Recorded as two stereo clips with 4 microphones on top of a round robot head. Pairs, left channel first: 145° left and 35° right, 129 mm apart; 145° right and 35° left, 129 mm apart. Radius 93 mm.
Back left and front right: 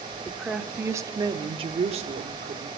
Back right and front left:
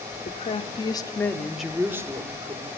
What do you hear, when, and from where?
0.2 s a woman speaking: 125° right, 1.5 m; by 2.7 s 15° right, 1.7 m